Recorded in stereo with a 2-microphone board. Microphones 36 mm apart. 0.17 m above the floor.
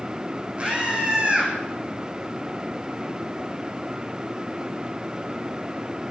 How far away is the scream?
About 9.5 m.